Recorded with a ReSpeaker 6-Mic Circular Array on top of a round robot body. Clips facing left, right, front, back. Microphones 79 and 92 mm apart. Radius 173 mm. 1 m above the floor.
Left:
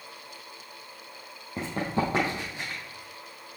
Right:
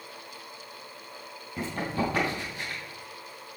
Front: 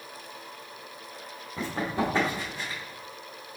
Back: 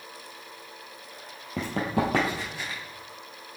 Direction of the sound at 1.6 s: 155° left.